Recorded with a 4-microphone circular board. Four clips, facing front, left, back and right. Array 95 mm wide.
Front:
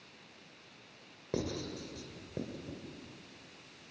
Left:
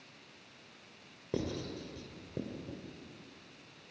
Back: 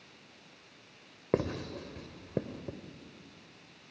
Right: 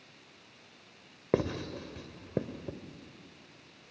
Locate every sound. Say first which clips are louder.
1.3 s writing: right 7 dB, back 5 dB; 130° right, 1.6 m